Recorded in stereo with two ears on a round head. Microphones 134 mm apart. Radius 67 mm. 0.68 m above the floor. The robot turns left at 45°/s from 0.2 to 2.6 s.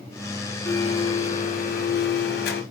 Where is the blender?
160° left, 2.5 m; by 2.6 s 70° left, 2.5 m.